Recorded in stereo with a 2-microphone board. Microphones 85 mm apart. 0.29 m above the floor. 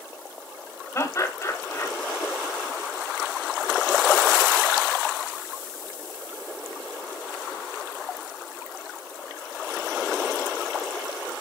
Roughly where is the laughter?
Left.